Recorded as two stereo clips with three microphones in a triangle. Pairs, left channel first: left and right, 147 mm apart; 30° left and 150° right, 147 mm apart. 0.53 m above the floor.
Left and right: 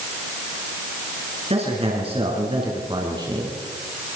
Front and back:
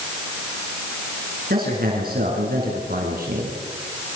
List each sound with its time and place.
1.5 s a man speaking: 135° right, 7 m; by 3.6 s 155° right, 6 m